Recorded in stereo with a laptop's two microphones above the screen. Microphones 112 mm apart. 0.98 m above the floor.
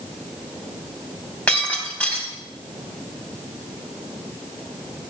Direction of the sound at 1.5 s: 10° left (ahead or behind).